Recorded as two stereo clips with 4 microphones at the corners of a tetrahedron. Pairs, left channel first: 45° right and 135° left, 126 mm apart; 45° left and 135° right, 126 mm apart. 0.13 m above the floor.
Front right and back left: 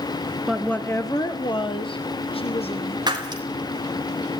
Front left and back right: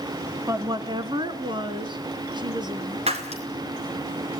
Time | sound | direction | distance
0.5 | a woman speaking | 145° right | 1.1 m
3.1 | breaking glass | 170° right | 4 m